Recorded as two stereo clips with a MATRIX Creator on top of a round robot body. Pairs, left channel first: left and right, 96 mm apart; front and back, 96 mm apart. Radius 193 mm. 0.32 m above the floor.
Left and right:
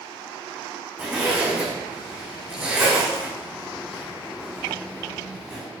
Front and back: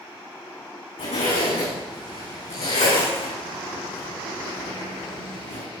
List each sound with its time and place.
1.0 s a zipper: 15° right, 7 m